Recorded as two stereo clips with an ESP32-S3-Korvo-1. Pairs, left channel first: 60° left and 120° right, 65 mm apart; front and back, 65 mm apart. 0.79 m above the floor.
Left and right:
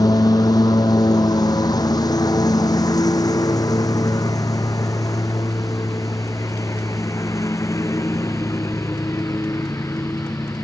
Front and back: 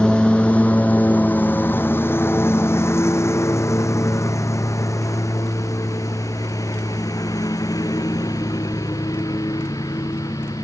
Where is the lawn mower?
75° left; by 10.6 s 15° left.